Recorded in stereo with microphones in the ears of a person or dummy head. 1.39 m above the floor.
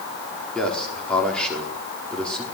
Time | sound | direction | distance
0.6 | a man speaking | 5° left (ahead or behind) | 4 m